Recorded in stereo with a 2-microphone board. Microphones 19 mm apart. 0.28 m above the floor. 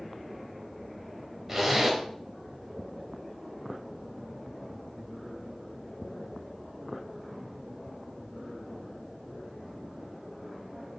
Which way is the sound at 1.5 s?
25° right (ahead or behind).